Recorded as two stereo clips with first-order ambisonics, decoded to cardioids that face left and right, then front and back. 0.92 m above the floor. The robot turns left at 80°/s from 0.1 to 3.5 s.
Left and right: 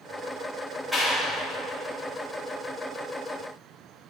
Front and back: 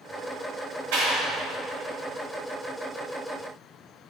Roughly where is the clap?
Behind.